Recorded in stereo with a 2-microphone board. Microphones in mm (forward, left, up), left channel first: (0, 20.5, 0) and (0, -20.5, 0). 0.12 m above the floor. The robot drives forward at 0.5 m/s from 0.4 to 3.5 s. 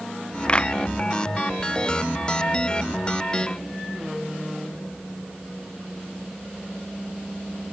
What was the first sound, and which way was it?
A clap, 25° left (ahead or behind).